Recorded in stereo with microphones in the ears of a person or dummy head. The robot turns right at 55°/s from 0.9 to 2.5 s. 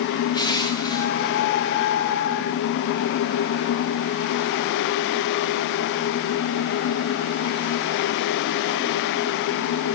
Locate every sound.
0.3 s crushing: 25° left (ahead or behind), 0.7 m; by 1.3 s centre (ahead or behind), 0.7 m